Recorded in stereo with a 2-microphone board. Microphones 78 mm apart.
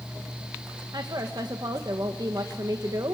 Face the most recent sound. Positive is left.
turn(degrees=-55)  # may be behind; listen again after turning